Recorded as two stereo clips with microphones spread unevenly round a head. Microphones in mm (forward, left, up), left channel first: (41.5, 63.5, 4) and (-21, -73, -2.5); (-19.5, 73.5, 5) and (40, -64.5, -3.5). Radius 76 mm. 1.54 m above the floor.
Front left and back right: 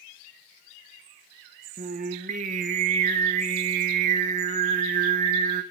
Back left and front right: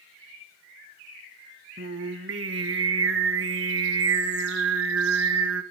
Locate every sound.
1.8 s singing: 75° right, 1.5 m